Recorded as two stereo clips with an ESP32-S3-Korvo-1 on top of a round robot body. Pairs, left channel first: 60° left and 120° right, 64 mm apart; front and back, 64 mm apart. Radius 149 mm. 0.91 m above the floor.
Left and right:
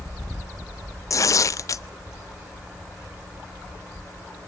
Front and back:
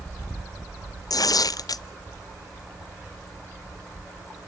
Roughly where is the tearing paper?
Ahead left.